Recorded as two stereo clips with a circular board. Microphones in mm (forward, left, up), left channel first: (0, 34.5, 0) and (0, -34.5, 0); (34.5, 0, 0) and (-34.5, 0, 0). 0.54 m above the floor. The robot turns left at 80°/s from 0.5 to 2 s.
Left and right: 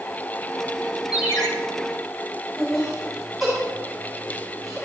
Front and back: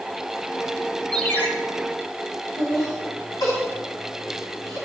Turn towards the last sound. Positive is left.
turn(degrees=5)